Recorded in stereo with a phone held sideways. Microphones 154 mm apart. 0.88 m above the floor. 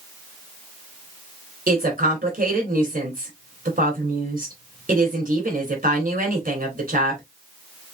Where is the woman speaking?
60° right (ahead or behind), 3.5 m.